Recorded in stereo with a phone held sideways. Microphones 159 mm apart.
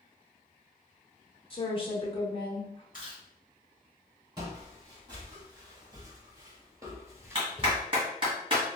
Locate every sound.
1.5 s a woman speaking: 35° left (ahead or behind), 0.6 m
2.9 s chewing: 60° left (ahead or behind), 1.2 m
4.4 s footsteps: 25° right (ahead or behind), 1.7 m; by 7.8 s 10° right (ahead or behind), 0.9 m
7.3 s a clap: 35° right (ahead or behind), 1.2 m